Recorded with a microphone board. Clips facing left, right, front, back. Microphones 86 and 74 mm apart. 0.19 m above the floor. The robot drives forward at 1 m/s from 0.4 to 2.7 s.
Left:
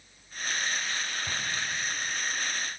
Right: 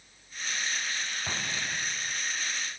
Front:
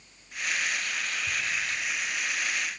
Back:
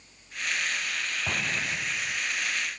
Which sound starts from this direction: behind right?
An explosion, at 1.3 s.